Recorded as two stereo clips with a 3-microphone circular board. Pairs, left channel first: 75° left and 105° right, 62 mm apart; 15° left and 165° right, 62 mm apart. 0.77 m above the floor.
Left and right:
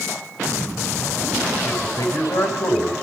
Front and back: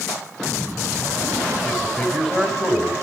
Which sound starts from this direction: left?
A man speaking, at 1.6 s.